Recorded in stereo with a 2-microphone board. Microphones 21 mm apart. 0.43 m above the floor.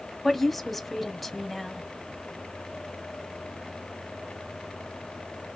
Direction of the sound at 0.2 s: 5° left (ahead or behind).